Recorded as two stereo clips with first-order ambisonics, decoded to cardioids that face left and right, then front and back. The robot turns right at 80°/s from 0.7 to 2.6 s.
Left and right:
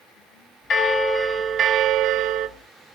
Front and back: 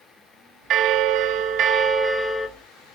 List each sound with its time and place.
0.7 s a bell: 140° left, 0.8 m; by 2.5 s 80° right, 0.8 m